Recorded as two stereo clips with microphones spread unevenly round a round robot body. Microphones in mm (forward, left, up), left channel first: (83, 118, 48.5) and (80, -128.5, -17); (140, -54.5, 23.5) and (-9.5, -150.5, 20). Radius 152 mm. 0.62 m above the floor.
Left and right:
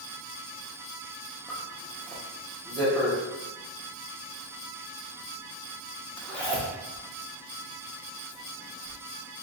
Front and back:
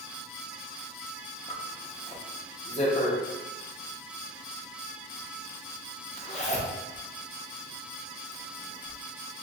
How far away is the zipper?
About 0.8 m.